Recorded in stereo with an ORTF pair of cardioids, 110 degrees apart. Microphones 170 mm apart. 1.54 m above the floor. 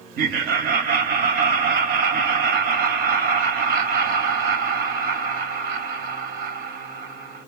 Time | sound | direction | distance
0.2 | laughter | 65° right | 0.7 m